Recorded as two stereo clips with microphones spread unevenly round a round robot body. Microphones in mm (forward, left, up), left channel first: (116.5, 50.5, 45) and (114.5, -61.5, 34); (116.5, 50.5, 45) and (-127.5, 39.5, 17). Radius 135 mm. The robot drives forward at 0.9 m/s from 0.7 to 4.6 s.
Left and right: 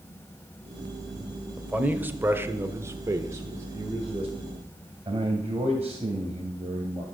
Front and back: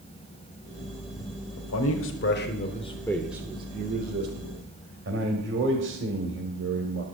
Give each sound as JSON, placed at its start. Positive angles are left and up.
{"t": 1.6, "sound": "a man speaking", "azimuth_deg": -15, "distance_m": 1.7}